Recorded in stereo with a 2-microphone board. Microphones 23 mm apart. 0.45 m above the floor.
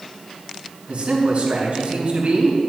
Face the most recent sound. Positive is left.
turn(degrees=-55)  # may be behind; listen again after turning